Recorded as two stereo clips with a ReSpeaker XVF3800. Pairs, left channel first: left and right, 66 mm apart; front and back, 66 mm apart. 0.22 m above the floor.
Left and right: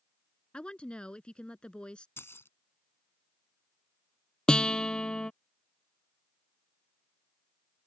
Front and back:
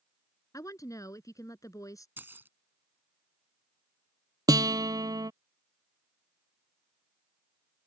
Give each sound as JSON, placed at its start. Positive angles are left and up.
{"t": 0.5, "sound": "a woman speaking", "azimuth_deg": 15}
{"t": 2.2, "sound": "keys jangling", "azimuth_deg": 130}
{"t": 4.5, "sound": "a guitar", "azimuth_deg": 165}